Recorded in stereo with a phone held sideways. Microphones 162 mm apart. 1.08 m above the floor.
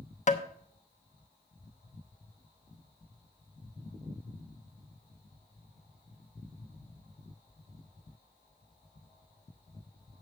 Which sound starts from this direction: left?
Tapping, at 0.3 s.